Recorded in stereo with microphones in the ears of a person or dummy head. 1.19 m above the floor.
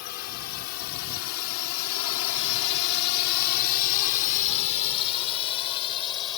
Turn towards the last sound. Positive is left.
turn(degrees=30)  # may be behind; listen again after turning